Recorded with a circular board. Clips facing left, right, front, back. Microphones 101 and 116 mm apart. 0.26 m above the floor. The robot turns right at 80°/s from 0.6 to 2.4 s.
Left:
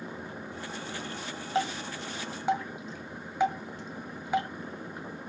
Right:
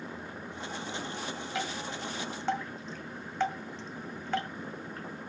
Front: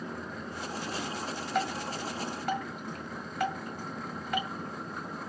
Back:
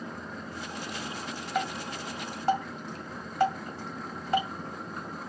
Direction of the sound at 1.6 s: 95° left.